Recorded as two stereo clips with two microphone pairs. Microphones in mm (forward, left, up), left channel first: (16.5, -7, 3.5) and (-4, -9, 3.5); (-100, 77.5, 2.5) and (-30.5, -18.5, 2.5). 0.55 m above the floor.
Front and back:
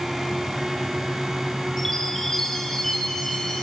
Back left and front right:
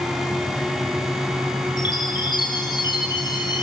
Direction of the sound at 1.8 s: 75° left.